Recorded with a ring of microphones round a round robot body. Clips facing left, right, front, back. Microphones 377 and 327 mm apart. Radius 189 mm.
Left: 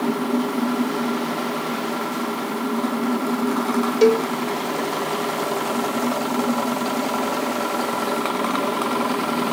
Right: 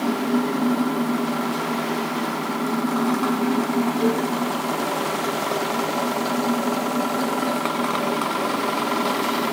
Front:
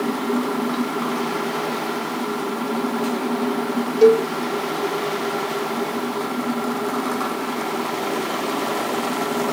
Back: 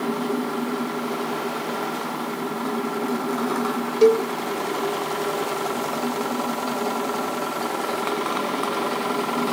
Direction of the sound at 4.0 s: 105° left.